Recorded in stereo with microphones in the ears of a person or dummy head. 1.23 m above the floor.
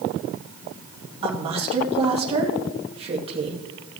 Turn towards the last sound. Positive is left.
turn(degrees=-30)  # may be behind; listen again after turning